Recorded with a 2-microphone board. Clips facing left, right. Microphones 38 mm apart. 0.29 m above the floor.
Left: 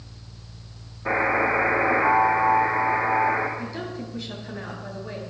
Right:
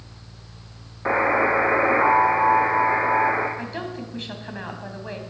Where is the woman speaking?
50° right (ahead or behind), 2.5 m.